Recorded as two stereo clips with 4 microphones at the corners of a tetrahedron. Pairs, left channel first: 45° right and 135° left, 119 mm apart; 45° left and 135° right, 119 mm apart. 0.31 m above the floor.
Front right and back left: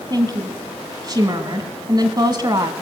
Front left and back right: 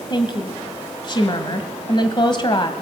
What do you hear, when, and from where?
0.1 s a woman speaking: 85° left, 1.8 m